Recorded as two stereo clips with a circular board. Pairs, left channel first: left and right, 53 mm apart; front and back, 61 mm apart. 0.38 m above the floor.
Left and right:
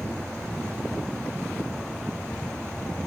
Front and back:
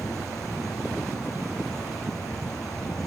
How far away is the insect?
About 8.5 m.